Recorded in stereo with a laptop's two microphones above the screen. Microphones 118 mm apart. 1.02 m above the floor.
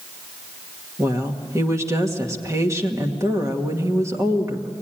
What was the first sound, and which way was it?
A woman speaking, 25° right (ahead or behind).